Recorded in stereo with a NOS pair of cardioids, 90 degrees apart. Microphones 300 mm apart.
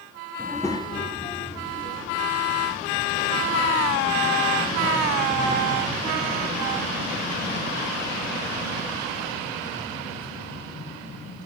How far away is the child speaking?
About 1.6 m.